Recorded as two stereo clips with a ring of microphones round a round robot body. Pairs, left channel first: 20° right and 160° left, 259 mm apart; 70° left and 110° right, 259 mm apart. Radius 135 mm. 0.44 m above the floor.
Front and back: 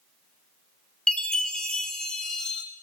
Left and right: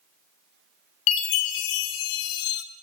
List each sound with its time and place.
1.1 s a chime: 65° left, 0.6 m